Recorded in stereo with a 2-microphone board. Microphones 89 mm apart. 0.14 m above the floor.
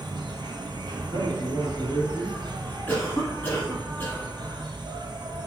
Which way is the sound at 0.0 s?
60° right (ahead or behind).